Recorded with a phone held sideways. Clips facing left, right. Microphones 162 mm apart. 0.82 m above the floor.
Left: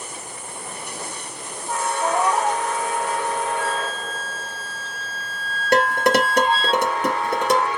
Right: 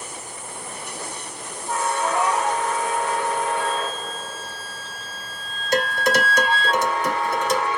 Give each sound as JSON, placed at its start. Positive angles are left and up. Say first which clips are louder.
{"t": 2.0, "sound": "a cat meowing", "louder": "left 3 dB", "side_deg": 35, "distance_m": 0.9}
{"t": 3.6, "sound": "a flute", "louder": "even", "side_deg": 50, "distance_m": 1.6}
{"t": 5.7, "sound": "dishes clattering", "louder": "left 4 dB", "side_deg": 65, "distance_m": 1.4}